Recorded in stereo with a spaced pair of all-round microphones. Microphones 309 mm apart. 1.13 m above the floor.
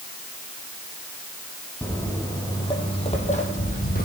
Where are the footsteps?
5° left (ahead or behind), 2.5 m; by 4.0 s 30° left (ahead or behind), 3 m.